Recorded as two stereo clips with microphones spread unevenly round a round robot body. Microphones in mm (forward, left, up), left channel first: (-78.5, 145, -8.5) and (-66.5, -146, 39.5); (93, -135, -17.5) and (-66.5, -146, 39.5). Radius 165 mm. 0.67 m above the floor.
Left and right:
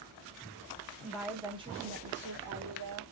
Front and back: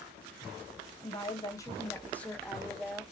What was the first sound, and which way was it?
A woman speaking, 15° left.